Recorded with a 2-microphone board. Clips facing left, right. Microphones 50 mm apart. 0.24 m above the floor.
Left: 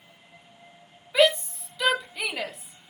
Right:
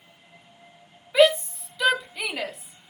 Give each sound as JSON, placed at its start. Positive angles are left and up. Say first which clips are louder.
{"t": 1.1, "sound": "a shout", "louder": "right 3 dB", "side_deg": -5, "distance_m": 1.0}